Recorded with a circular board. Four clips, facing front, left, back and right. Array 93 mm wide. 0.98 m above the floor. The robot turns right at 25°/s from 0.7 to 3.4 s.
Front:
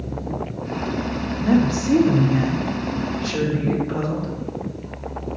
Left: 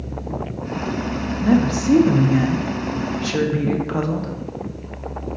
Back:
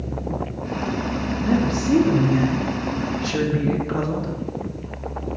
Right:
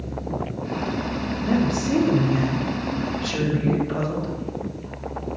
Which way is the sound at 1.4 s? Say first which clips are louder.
Left 5 dB, front 3 dB; 60° left.